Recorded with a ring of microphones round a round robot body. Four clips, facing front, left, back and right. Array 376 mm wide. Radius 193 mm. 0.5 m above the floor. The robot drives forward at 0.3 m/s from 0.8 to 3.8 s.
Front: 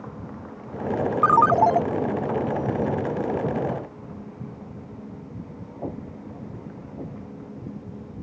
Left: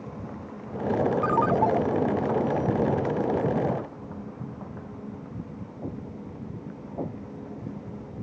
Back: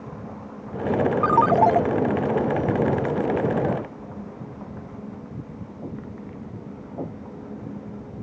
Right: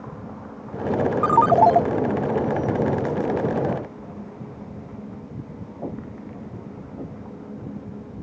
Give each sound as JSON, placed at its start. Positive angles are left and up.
{"t": 1.2, "sound": "a ringtone", "azimuth_deg": -70}